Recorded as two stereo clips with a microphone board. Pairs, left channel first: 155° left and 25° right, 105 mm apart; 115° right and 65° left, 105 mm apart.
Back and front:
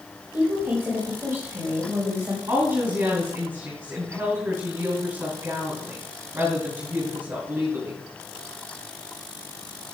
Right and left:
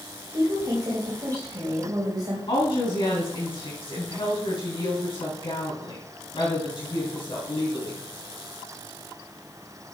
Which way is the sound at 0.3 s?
35° left.